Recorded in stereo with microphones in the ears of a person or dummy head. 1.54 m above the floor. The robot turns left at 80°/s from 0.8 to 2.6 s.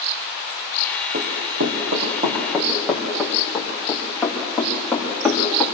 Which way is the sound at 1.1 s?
55° right (ahead or behind).